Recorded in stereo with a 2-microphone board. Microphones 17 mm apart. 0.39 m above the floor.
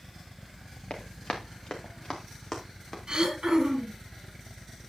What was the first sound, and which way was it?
Running footsteps, 70° left (ahead or behind).